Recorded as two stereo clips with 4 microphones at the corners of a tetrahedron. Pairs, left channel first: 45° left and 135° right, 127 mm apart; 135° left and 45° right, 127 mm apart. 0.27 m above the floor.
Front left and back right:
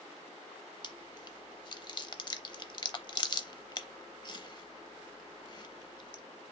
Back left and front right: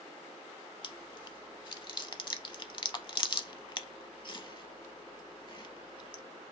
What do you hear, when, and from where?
0.8 s chewing: 90° left, 0.6 m